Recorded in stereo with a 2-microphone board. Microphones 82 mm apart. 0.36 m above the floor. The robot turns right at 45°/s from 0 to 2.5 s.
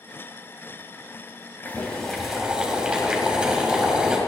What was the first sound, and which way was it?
Boiling, 155° left.